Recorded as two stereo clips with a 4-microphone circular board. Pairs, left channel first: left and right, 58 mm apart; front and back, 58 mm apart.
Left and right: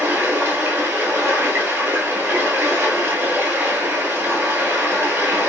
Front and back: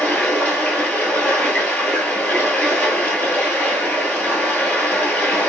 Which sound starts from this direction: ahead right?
Running water, at 0.0 s.